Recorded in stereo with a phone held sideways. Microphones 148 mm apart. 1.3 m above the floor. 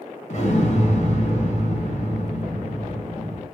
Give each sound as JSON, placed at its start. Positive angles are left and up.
{"t": 0.3, "sound": "an explosion", "side_deg": 50, "distance_m": 0.9}